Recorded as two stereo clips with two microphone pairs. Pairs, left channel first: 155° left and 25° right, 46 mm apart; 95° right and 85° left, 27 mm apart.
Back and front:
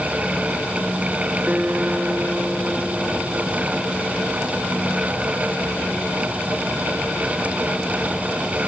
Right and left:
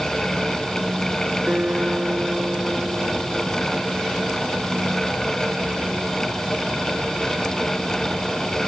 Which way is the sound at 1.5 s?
35° left.